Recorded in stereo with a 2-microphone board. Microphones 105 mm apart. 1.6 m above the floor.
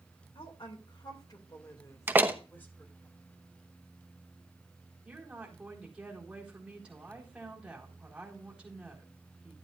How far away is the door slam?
About 0.8 m.